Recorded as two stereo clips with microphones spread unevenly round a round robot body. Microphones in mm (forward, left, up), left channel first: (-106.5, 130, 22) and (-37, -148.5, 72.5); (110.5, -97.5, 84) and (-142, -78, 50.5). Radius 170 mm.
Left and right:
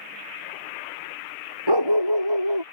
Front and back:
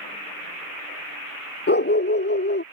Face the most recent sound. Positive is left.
turn(degrees=-55)